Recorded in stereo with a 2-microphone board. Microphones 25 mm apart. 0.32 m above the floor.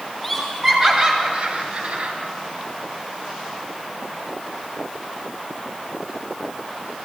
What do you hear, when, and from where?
0.2 s laughter: 5° right (ahead or behind), 2.5 m; by 2.1 s 60° right (ahead or behind), 3 m